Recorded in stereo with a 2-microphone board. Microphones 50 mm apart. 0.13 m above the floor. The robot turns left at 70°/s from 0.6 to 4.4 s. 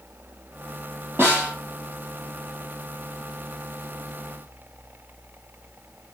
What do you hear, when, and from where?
1.2 s a snare drum: 50° right (ahead or behind), 4 m; by 1.6 s 25° right (ahead or behind), 4 m